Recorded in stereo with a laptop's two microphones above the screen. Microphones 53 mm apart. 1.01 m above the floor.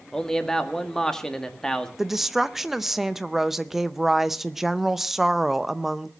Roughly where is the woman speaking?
Centre.